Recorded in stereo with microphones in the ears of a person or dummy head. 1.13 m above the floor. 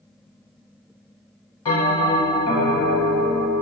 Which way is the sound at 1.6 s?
25° left (ahead or behind).